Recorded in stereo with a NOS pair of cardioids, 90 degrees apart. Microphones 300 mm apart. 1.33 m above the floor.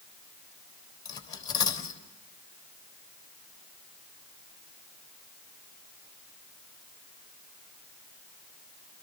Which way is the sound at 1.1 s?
45° left.